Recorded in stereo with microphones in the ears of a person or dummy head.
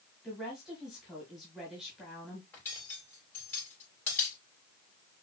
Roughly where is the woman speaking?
Centre.